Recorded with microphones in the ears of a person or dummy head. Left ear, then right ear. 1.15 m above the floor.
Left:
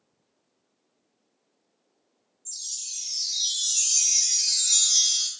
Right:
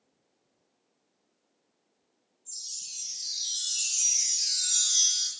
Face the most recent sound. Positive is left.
turn(degrees=15)  # may be behind; listen again after turning